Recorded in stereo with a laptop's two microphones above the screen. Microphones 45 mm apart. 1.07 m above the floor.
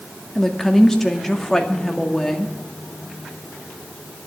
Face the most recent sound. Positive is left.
turn(degrees=10)  # may be behind; listen again after turning